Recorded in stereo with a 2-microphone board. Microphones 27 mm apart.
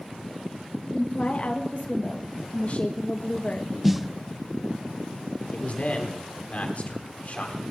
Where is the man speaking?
50° left (ahead or behind), 3 m.